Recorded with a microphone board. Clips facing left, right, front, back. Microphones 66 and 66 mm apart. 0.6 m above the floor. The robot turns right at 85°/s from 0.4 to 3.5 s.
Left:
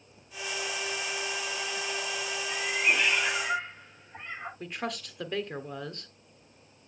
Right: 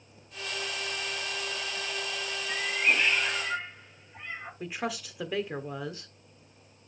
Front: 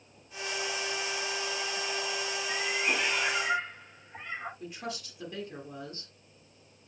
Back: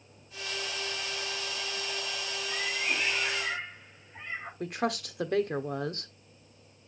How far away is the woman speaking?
About 1.4 m.